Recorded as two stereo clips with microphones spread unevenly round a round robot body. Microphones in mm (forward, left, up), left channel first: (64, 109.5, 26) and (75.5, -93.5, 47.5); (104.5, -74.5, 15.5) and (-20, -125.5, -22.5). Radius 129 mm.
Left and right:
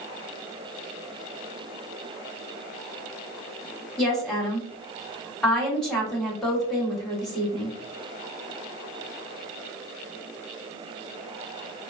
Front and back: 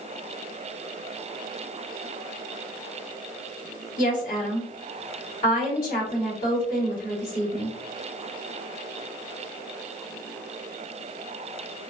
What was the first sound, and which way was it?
A woman speaking, 5° left.